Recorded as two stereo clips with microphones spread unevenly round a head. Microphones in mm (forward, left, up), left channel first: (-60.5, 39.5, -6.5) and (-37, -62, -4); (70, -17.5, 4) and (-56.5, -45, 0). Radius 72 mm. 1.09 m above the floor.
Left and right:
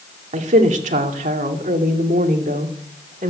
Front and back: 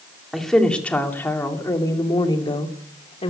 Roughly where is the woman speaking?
Right.